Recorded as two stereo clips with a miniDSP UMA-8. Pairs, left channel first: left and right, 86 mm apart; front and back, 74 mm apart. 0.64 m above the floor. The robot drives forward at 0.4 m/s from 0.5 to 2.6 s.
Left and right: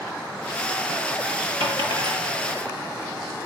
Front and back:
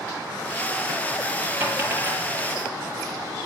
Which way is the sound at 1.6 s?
110° right.